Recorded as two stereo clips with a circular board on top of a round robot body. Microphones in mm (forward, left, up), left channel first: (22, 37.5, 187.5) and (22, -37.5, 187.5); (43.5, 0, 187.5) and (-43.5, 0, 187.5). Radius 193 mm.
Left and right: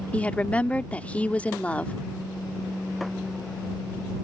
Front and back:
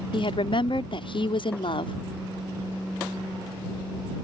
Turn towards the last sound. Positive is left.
turn(degrees=15)